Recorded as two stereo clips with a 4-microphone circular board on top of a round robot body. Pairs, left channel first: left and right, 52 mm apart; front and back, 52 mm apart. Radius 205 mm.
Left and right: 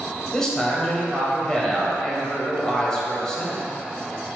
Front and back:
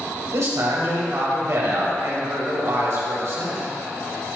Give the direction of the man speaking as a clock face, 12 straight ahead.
6 o'clock.